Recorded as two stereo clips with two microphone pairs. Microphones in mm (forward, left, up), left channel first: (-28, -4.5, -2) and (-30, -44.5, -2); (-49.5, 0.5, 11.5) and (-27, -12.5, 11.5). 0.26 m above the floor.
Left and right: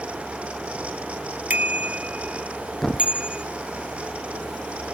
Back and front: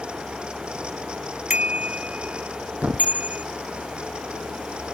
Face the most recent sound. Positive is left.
turn(degrees=5)